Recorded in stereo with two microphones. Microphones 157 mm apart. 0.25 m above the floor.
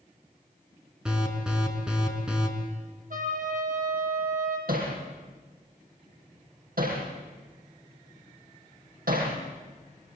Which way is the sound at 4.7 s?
75° right (ahead or behind).